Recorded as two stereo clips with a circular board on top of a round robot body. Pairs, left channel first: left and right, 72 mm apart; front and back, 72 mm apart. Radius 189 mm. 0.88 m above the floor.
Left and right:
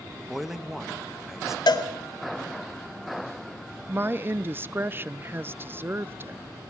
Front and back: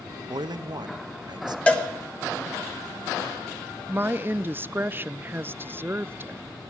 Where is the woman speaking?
135° right, 0.6 m.